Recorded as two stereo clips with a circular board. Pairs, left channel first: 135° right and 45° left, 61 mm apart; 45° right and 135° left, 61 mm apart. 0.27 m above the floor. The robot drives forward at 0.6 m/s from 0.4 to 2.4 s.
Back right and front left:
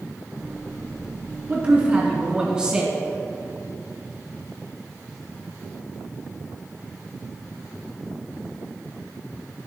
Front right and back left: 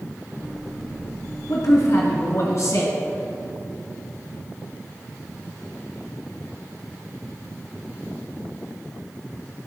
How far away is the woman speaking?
About 3 m.